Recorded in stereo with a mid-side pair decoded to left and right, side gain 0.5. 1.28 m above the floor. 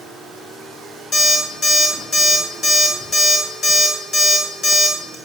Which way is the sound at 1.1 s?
45° left.